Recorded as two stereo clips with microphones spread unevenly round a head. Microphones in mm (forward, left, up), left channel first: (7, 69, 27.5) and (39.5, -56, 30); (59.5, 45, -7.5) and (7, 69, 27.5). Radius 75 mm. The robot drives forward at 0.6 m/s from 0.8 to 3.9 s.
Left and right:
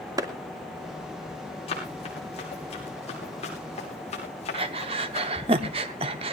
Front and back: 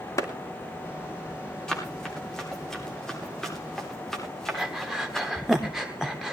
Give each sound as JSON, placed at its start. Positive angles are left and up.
{"t": 0.2, "sound": "a clap", "azimuth_deg": -10, "distance_m": 2.5}
{"t": 1.7, "sound": "running footsteps", "azimuth_deg": 60, "distance_m": 9.0}
{"t": 4.5, "sound": "breathing", "azimuth_deg": -130, "distance_m": 0.9}